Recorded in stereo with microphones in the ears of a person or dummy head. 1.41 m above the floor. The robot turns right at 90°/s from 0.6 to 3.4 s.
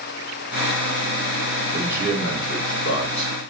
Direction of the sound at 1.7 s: 30° right.